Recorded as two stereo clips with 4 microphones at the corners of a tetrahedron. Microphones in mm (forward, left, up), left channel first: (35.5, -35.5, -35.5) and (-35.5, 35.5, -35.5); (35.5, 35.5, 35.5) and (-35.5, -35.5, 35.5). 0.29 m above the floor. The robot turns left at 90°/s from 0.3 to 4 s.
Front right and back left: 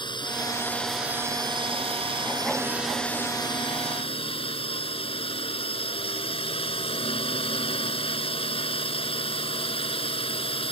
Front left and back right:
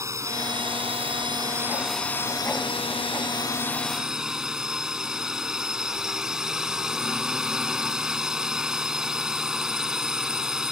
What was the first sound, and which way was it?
A drone, 80° right.